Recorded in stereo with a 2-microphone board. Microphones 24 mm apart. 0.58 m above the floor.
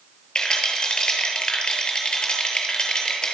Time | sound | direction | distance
0.3 | a rattle | 35° left (ahead or behind) | 8 m